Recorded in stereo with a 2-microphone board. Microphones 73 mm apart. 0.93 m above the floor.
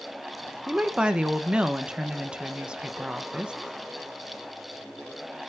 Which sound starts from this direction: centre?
A woman speaking, at 0.7 s.